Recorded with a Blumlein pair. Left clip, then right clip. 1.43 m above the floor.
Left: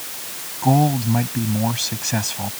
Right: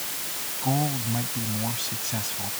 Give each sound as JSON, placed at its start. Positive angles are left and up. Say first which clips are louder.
{"t": 0.6, "sound": "a man speaking", "louder": "left 10 dB", "azimuth_deg": 65}